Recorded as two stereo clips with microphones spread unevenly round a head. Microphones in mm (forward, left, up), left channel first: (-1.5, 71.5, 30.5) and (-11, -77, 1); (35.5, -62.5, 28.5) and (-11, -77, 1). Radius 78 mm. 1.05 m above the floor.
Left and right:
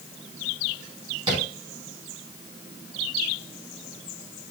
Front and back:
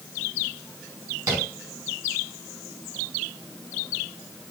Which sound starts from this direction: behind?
Tapping, at 1.3 s.